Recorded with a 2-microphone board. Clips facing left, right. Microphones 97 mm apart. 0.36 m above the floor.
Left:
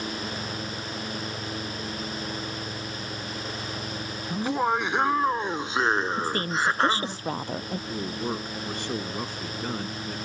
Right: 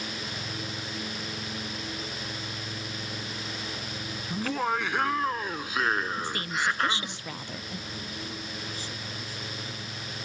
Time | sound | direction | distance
4.3 | laughter | 20° left (ahead or behind) | ?
6.2 | a woman speaking | 40° left (ahead or behind) | ?
7.9 | a man speaking | 70° left (ahead or behind) | ?